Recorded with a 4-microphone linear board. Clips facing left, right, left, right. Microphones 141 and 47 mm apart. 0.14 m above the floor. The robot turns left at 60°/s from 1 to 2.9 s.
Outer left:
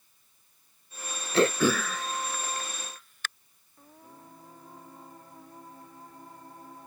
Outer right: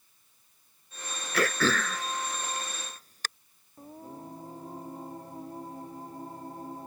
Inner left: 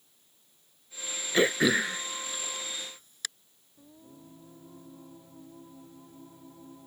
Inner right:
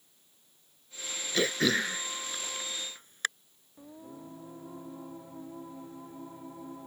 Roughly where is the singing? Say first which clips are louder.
Outer right 8 dB, inner right 6 dB; right.